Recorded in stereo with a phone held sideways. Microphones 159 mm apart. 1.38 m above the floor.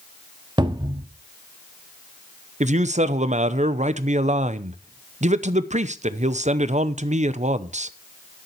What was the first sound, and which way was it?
A cupboard door, 30° right (ahead or behind).